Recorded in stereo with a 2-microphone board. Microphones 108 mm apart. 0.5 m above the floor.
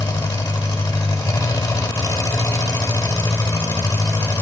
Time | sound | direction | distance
0.0 | an engine running | 35° left (ahead or behind) | 1.1 m